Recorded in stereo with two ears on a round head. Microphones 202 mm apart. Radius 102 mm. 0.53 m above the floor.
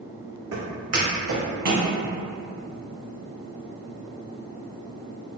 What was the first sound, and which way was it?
Footsteps, 70° right (ahead or behind).